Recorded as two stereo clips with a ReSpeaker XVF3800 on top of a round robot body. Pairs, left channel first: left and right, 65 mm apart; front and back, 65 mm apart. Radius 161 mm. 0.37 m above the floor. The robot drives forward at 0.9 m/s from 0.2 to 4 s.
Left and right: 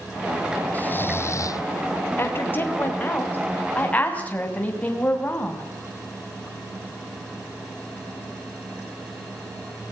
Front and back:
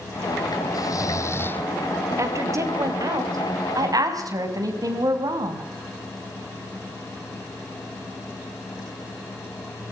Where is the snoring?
25° left, 1.1 m; by 1.6 s 65° left, 0.6 m.